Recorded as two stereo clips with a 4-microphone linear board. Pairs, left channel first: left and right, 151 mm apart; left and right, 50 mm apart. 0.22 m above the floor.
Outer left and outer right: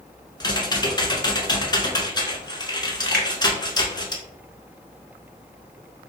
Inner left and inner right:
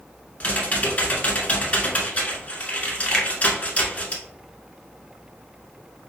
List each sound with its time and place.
0.4 s typing on a keyboard: 30° left (ahead or behind), 0.8 m
3.1 s a finger snap: 5° left (ahead or behind), 0.9 m